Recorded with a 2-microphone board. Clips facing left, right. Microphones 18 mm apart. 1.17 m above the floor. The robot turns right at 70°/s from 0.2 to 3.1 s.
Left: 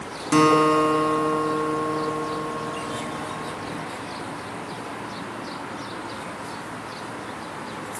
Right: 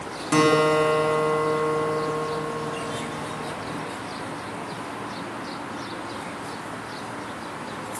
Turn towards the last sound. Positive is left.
turn(degrees=5)